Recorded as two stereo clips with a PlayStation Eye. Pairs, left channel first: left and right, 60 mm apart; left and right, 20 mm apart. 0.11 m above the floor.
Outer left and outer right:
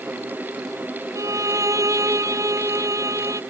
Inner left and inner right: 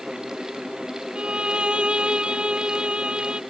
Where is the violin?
65° right (ahead or behind).